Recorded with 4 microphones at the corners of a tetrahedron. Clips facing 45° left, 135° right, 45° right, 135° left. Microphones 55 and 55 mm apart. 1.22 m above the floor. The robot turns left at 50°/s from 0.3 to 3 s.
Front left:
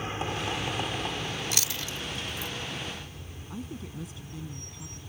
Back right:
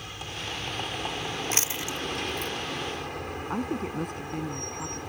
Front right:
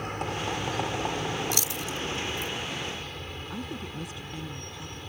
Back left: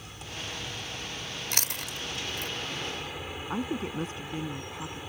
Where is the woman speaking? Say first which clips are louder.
Back right 9 dB, back left 7 dB; 170° right.